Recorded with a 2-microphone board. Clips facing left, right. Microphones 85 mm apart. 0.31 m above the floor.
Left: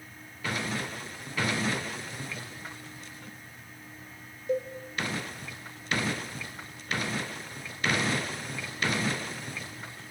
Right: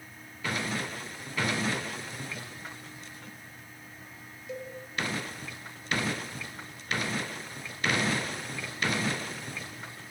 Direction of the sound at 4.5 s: 45° left (ahead or behind).